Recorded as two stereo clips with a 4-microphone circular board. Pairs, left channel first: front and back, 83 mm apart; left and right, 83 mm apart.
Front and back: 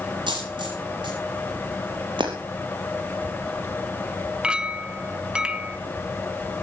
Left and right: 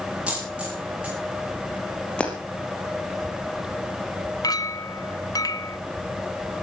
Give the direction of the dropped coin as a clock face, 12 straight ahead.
6 o'clock.